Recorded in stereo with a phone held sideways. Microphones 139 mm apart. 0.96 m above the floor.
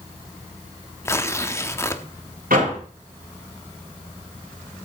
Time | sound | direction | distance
1.1 | tearing paper | 20° left (ahead or behind) | 0.9 m
2.5 | a door slam | 85° right | 5 m